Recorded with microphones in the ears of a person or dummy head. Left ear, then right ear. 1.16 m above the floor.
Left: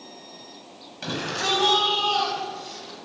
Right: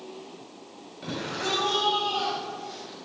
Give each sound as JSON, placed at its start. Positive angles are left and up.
{"t": 1.0, "sound": "a shout", "side_deg": 25, "distance_m": 8.5}